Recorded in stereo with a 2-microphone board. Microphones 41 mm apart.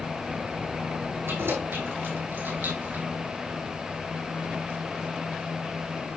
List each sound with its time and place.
1.3 s keys jangling: 70° right (ahead or behind), 4.5 m; by 3.0 s 45° right (ahead or behind), 3 m